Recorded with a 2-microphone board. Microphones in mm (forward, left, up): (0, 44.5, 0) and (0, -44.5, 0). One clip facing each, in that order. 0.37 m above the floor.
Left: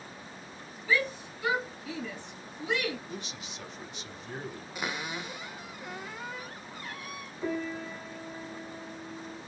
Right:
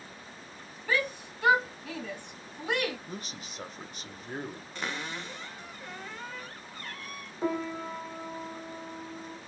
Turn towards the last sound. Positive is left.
turn(degrees=-40)  # may be behind; listen again after turning